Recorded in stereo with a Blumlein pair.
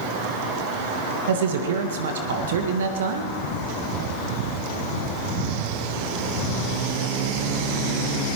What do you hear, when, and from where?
1.3 s a man speaking: 60° right, 1.5 m